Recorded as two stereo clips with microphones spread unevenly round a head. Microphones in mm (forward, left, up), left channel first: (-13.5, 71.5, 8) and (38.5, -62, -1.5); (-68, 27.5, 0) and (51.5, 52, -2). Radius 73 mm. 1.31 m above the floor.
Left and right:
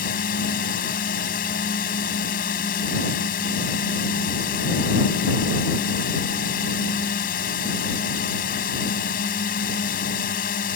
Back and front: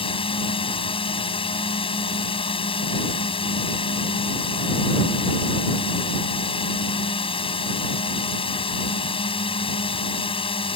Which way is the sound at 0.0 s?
150° left.